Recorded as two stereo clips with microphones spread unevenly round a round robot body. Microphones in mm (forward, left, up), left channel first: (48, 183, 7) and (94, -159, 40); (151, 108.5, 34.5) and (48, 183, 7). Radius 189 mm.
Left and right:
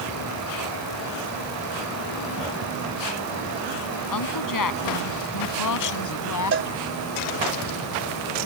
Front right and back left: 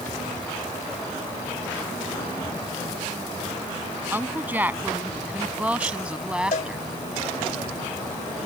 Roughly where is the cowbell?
Ahead right.